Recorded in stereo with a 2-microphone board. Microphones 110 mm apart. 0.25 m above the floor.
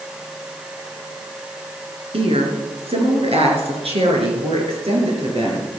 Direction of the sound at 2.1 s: 60° right (ahead or behind).